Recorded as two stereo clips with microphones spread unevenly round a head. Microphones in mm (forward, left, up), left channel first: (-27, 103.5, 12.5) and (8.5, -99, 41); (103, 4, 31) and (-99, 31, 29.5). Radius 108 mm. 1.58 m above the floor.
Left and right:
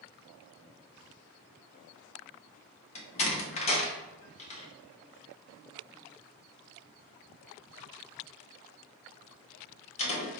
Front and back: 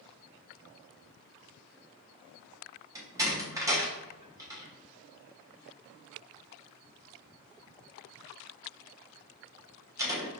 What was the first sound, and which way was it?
A door slam, 120° left.